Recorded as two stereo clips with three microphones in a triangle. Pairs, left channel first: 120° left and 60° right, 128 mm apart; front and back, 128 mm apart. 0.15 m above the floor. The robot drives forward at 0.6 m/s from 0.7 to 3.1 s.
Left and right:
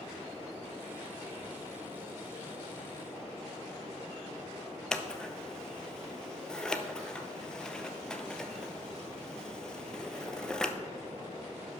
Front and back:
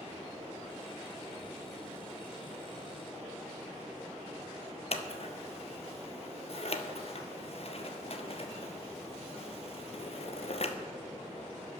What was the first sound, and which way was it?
Scissors, 35° left.